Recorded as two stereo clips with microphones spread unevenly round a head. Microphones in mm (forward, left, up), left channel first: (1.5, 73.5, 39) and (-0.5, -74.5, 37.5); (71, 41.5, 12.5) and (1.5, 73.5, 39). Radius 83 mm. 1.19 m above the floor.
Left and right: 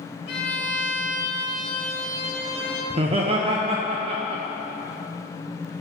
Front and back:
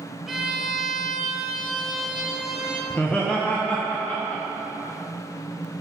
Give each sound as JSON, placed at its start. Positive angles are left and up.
{"t": 0.3, "sound": "a violin", "azimuth_deg": 75, "distance_m": 1.2}
{"t": 2.9, "sound": "laughter", "azimuth_deg": -65, "distance_m": 0.6}